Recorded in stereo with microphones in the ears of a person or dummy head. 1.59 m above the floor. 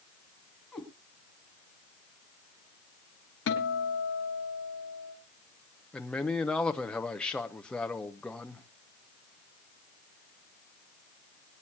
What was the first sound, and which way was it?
A cat meowing, 5° left (ahead or behind).